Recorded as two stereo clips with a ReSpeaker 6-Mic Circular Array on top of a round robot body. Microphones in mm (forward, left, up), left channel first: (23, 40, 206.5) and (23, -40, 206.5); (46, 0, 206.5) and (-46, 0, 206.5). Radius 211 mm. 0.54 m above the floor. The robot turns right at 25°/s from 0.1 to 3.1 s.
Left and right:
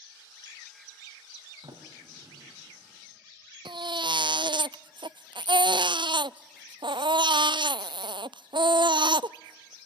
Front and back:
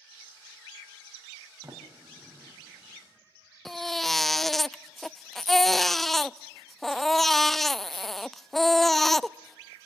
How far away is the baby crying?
About 0.5 m.